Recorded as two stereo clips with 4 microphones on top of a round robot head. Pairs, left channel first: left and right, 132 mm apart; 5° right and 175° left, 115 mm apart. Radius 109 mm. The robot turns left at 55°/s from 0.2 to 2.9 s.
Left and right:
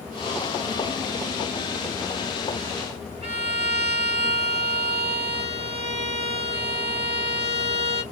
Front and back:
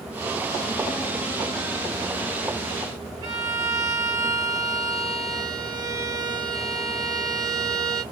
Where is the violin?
130° right, 1.4 m.